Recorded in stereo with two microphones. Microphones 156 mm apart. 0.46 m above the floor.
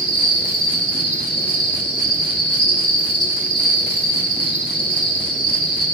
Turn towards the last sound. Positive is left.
turn(degrees=35)  # may be behind; listen again after turning